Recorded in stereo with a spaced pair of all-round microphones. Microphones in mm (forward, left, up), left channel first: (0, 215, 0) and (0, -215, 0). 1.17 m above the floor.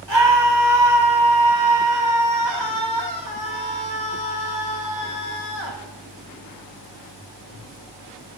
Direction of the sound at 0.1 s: 75° right (ahead or behind).